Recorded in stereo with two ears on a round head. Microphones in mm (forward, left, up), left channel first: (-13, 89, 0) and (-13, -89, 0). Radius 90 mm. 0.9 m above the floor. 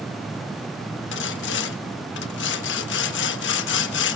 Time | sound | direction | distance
1.1 | sawing | 60° left (ahead or behind) | 1.2 m